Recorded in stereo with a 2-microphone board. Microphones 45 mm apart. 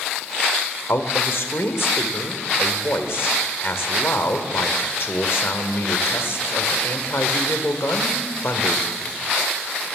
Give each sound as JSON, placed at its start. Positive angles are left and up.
{"t": 0.9, "sound": "a man speaking", "side_deg": 65, "distance_m": 1.4}